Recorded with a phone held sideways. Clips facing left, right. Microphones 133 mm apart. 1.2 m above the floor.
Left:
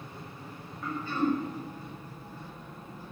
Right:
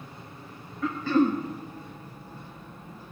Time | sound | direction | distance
0.8 | throat clearing | 75° right (ahead or behind) | 1.5 m